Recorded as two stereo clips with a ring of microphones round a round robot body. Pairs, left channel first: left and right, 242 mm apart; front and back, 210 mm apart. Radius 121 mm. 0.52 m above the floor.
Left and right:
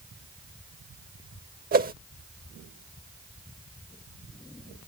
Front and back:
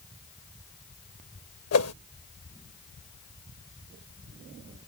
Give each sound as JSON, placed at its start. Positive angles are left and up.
{"t": 1.7, "sound": "a whoosh", "azimuth_deg": -35}